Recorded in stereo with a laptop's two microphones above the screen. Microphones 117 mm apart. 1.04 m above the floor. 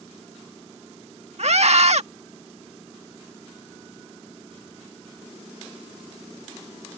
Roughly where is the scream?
Right.